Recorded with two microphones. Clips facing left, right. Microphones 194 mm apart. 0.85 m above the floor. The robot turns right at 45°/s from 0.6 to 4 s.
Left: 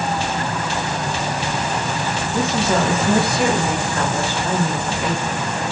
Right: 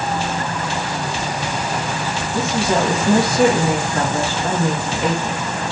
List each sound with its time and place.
2.3 s a woman speaking: 165° left, 1.3 m; by 5.4 s 120° right, 1.3 m